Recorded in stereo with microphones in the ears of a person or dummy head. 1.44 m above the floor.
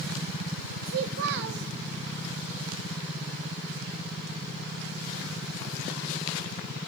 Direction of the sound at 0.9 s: 60° right (ahead or behind).